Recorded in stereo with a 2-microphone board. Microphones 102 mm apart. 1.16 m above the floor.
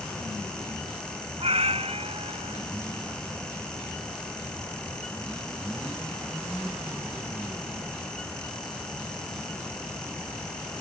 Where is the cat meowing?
80° right.